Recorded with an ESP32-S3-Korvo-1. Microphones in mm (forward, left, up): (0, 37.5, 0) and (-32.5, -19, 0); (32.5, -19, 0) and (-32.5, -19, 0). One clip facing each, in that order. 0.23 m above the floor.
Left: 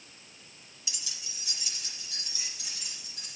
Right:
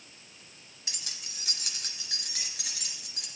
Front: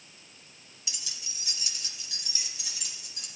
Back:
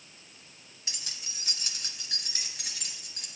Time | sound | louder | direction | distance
0.9 | keys jangling | right 1 dB, back 1 dB | 150° right | 1.0 m